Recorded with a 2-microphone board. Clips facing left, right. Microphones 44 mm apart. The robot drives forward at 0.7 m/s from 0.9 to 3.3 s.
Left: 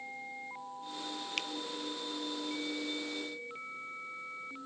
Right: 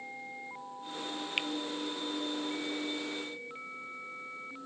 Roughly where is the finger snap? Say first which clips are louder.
Right 5 dB; right.